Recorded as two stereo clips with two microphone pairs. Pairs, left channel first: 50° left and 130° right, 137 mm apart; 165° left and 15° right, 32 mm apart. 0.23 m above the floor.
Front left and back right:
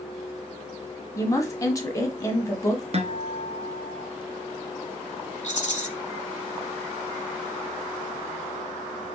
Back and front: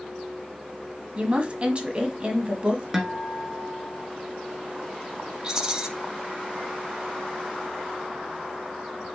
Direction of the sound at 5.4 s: 45° left.